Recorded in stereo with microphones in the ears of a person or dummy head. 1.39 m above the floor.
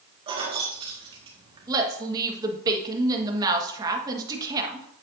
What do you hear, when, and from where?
0.3 s keys jangling: 25° right (ahead or behind), 1.6 m
1.7 s a woman speaking: 15° right (ahead or behind), 1.5 m